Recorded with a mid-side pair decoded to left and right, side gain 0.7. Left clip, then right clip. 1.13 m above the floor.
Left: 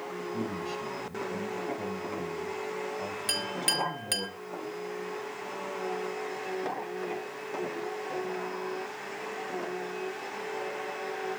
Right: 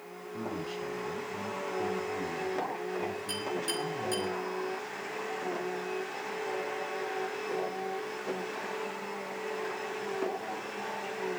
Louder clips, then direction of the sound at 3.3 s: Left 7 dB; 50° left.